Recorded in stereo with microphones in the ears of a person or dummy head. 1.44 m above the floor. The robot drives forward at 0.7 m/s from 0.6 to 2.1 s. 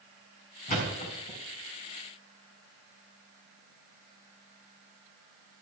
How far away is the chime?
I don't hear a chime.